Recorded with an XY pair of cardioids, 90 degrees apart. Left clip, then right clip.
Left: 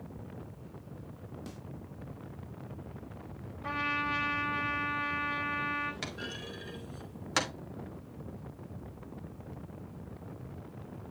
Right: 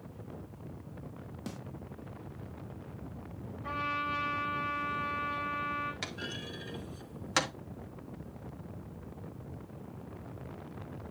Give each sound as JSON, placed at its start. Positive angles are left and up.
{"t": 1.5, "sound": "a snare drum", "azimuth_deg": -35, "distance_m": 1.3}
{"t": 3.6, "sound": "a trumpet", "azimuth_deg": 50, "distance_m": 4.0}
{"t": 6.0, "sound": "a clunk", "azimuth_deg": -5, "distance_m": 2.0}